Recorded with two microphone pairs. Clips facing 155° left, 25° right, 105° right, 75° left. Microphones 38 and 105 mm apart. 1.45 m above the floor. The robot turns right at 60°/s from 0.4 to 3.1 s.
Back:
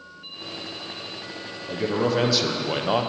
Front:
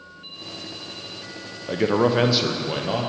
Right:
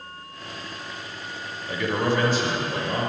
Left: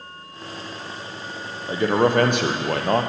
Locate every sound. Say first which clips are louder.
1.7 s a man speaking: front 4 dB, left 6 dB; 10° left, 0.6 m; by 3.1 s 95° left, 0.6 m